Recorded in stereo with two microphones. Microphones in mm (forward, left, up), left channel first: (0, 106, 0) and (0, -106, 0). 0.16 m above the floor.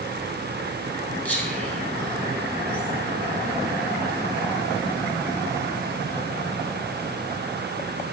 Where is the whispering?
5° left (ahead or behind), 1.1 m.